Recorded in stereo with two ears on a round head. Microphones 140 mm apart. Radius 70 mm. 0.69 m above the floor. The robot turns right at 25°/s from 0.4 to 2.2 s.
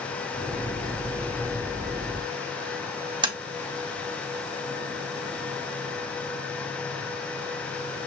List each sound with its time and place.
3.2 s tapping: 30° right (ahead or behind), 0.7 m